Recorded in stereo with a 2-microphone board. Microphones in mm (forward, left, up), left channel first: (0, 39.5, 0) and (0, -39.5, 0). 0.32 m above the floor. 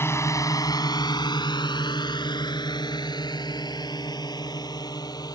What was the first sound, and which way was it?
A drone, 30° left (ahead or behind).